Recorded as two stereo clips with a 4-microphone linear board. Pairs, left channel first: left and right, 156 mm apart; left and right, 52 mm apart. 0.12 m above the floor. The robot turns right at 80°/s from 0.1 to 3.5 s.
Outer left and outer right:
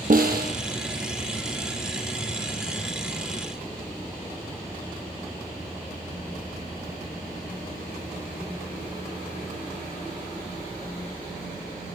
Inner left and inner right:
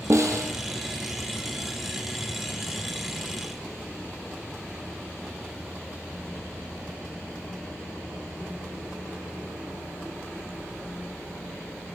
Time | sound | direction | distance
0.1 | a snare drum | 110° right | 1.0 m